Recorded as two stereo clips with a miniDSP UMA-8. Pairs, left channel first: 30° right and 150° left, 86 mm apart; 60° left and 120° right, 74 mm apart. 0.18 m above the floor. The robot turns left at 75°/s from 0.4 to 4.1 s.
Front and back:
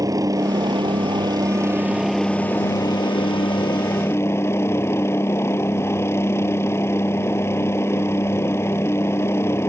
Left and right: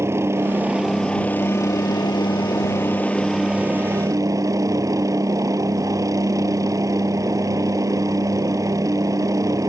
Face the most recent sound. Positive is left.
turn(degrees=-85)